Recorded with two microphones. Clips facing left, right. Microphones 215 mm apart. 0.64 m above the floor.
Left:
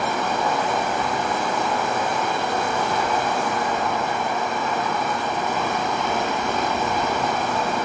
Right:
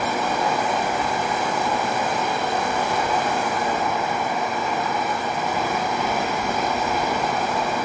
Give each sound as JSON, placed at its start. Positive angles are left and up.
{"t": 0.0, "sound": "running water", "side_deg": -5, "distance_m": 2.5}